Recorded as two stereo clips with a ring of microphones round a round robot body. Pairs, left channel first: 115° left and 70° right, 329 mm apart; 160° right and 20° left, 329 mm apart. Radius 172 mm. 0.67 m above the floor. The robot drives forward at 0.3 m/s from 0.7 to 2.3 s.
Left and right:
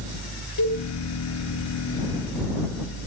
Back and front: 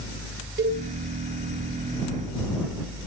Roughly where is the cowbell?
Left.